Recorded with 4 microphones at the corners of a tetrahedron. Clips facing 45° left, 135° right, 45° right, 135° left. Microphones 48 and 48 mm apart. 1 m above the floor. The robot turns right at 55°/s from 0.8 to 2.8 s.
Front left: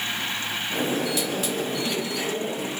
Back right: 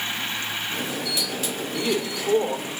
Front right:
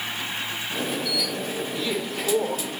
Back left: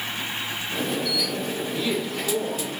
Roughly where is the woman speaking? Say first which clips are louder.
Back right 2 dB, back left 2 dB; behind.